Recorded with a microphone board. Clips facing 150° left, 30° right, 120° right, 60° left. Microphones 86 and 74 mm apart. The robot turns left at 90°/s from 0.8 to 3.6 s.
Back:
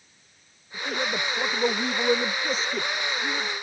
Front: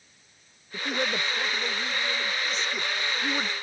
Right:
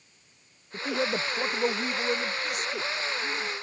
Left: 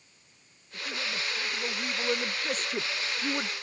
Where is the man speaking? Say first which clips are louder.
Even, right 7 dB; 95° right; by 3.5 s 20° left.